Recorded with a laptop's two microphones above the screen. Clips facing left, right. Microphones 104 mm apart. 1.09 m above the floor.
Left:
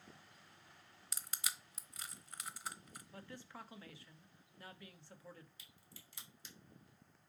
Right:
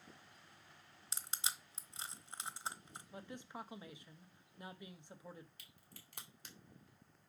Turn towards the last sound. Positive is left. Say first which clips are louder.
# even
turn(degrees=-55)  # may be behind; listen again after turning